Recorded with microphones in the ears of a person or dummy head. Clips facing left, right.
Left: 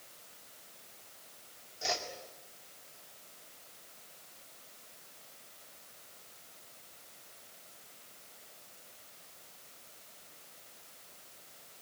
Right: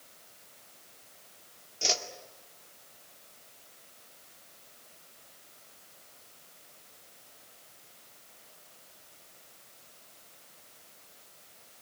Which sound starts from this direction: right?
A whoosh, at 1.8 s.